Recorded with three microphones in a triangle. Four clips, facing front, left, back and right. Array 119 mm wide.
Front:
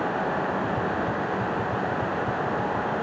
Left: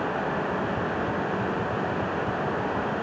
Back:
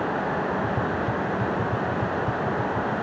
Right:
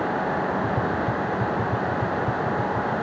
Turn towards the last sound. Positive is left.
turn(degrees=-110)